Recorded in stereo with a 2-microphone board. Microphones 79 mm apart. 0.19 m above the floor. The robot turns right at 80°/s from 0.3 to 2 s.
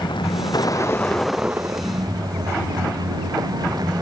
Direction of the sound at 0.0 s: 100° left.